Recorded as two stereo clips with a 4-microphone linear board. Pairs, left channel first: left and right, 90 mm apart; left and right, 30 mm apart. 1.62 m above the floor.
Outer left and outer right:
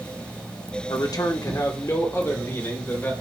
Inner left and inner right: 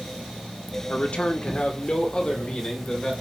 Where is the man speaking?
50° left (ahead or behind), 1.0 m; by 3.1 s 25° left (ahead or behind), 1.9 m.